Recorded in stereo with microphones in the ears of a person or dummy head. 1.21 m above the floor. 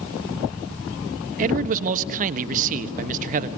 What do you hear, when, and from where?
1.4 s a man speaking: 45° right (ahead or behind), 1.3 m